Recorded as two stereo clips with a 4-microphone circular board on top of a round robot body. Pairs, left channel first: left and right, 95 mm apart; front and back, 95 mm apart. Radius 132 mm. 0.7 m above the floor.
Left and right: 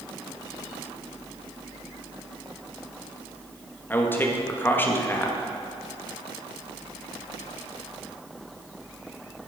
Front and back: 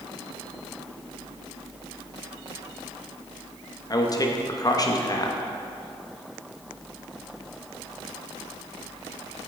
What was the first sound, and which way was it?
A man speaking, 30° left.